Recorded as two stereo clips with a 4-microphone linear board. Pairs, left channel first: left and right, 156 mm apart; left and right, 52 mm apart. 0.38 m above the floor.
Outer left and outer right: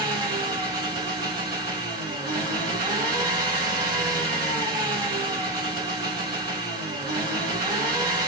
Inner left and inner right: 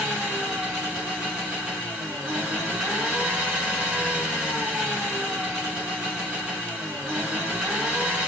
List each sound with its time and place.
0.0 s an engine running: 25° right (ahead or behind), 2 m